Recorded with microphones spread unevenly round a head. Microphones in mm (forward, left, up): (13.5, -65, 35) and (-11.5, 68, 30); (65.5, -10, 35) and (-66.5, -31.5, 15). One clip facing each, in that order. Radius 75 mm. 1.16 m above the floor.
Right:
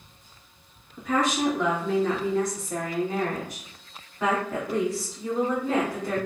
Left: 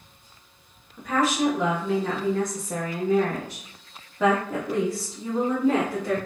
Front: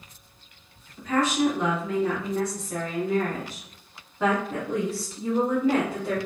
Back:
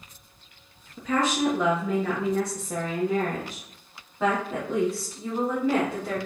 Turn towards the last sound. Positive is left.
turn(degrees=85)